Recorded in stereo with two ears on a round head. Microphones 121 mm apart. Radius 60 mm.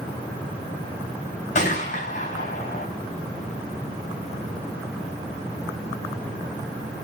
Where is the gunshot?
60° left (ahead or behind), 4 m.